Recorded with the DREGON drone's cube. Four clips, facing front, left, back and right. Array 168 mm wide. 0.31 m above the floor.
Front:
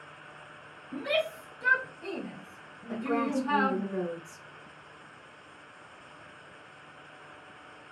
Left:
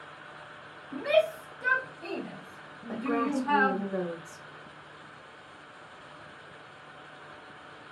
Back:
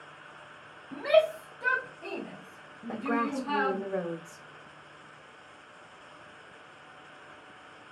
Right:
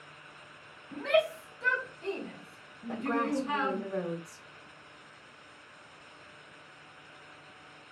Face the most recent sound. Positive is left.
turn(degrees=165)